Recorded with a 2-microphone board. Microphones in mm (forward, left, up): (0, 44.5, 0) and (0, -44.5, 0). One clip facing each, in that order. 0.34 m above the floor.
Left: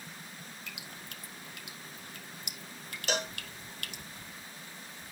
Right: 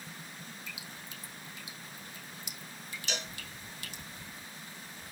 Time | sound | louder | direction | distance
0.7 | dripping | even | 65° left (ahead or behind) | 3 m
3.1 | a cowbell | left 7 dB | 55° left (ahead or behind) | 0.7 m